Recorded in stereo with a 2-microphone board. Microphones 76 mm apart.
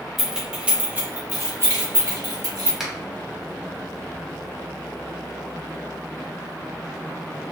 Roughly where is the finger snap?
Centre.